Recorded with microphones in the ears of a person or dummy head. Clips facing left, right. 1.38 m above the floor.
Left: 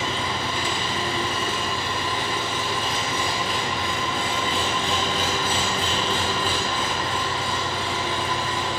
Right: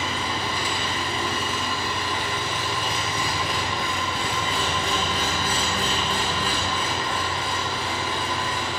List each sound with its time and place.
0.0 s an engine running: 25° left (ahead or behind), 0.8 m